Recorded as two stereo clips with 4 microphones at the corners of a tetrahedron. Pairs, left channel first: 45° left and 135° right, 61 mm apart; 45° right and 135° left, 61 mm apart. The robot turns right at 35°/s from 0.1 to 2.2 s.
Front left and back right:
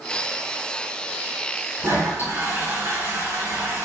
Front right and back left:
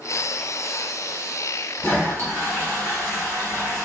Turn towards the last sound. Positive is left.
turn(degrees=-95)